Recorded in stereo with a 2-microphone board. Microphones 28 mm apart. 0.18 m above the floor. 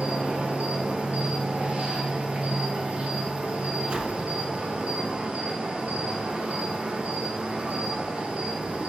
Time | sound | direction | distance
0.0 | an insect | 55° right (ahead or behind) | 1.2 m
3.9 | a whoosh | 50° right (ahead or behind) | 0.9 m